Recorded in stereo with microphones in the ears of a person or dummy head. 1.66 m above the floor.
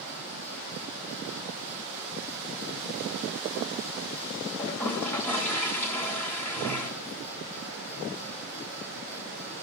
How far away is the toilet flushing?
About 2.5 m.